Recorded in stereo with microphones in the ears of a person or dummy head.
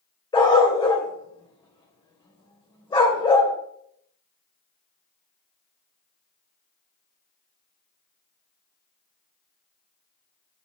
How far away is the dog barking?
About 3 m.